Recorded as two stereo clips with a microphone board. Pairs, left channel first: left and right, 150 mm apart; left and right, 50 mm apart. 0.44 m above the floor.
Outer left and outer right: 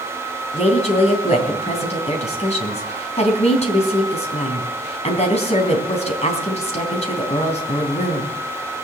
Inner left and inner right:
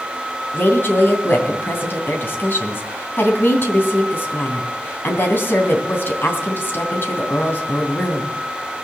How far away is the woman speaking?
About 3 m.